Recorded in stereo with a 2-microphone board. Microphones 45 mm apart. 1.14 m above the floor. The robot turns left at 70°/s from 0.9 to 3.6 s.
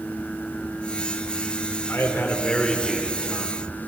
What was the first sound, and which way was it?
A man speaking, 70° left.